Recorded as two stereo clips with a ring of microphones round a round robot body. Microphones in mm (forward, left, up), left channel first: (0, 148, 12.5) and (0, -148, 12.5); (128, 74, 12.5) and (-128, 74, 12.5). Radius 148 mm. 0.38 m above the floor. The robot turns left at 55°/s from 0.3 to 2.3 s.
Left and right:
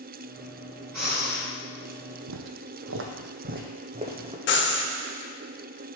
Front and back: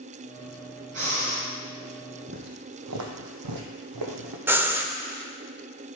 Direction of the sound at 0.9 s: 125° right.